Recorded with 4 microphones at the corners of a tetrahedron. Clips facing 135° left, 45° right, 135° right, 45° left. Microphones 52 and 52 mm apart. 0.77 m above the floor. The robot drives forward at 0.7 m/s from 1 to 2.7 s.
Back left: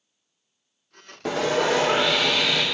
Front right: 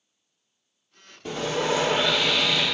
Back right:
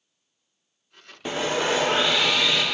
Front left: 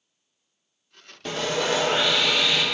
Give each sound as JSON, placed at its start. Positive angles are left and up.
{"t": 1.2, "sound": "sawing", "azimuth_deg": 150, "distance_m": 0.7}